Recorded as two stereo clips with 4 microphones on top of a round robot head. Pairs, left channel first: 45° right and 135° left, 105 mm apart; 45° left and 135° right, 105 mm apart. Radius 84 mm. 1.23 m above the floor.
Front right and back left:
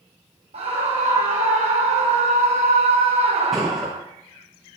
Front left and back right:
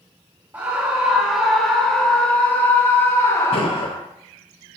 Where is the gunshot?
45° left, 9.5 m.